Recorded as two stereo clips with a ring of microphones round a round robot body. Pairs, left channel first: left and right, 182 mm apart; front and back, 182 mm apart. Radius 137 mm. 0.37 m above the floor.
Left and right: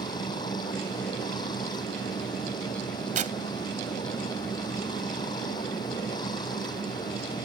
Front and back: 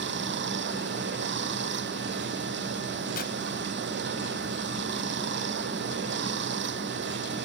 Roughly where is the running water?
Behind.